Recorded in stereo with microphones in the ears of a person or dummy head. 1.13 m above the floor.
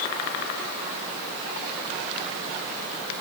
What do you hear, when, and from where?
Only background noise.